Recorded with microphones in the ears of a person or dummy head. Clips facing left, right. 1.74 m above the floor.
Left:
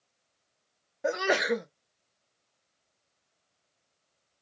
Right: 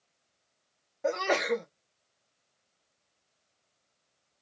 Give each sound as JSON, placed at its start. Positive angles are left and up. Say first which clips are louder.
{"t": 1.0, "sound": "a sneeze", "louder": "left 1 dB", "side_deg": 10, "distance_m": 0.6}